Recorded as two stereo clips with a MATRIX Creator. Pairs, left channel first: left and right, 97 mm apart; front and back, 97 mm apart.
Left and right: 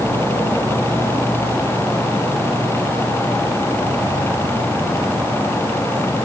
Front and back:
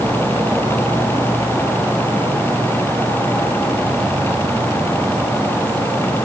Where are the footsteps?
I don't hear footsteps.